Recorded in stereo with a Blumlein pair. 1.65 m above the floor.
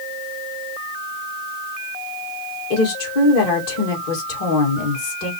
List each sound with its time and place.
2.7 s a woman speaking: 45° left, 3 m